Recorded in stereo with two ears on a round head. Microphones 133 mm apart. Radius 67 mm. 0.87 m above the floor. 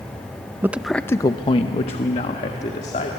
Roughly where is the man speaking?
Centre.